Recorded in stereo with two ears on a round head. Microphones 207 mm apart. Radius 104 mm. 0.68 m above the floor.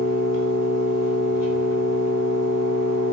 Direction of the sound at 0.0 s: 75° left (ahead or behind).